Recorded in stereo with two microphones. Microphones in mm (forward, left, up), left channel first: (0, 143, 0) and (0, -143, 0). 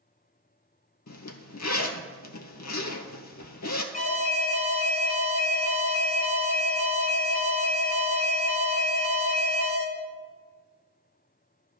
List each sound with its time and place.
1.1 s a zipper: 75° left (ahead or behind), 0.7 m
3.9 s an alarm: 30° left (ahead or behind), 1.1 m